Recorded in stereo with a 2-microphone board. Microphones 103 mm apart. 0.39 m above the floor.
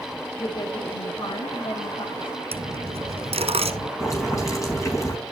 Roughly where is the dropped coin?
Right.